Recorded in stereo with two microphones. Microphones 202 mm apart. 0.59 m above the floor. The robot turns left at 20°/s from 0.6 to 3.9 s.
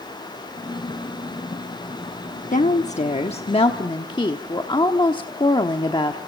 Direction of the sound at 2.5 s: 40° left (ahead or behind).